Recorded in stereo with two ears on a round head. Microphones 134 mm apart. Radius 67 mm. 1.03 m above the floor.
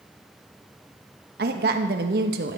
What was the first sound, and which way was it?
A woman speaking, 70° right (ahead or behind).